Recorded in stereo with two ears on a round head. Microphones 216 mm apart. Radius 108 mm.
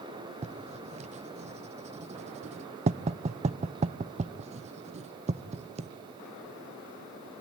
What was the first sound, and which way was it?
Writing, 30° right (ahead or behind).